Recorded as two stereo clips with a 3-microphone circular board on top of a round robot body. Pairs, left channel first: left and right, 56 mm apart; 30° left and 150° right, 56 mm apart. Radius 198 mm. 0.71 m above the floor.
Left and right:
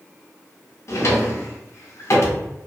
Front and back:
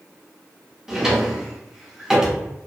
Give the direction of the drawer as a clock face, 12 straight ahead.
8 o'clock.